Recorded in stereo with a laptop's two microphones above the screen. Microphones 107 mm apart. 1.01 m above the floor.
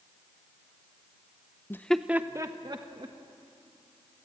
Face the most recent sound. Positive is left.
turn(degrees=-45)  # may be behind; listen again after turning